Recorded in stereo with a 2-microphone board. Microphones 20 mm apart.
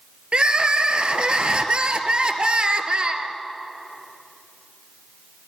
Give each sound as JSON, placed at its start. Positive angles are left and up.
{"t": 0.3, "sound": "crying", "side_deg": -50, "distance_m": 0.7}